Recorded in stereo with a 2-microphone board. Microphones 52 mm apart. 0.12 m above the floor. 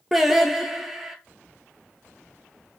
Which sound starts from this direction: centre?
Singing, at 0.1 s.